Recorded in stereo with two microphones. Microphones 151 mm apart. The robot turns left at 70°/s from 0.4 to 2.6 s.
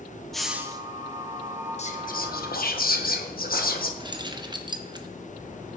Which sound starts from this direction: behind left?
Whispering, at 1.8 s.